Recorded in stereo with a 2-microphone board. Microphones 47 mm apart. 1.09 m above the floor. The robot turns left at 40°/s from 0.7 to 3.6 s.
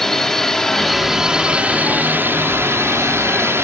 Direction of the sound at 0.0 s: 10° left.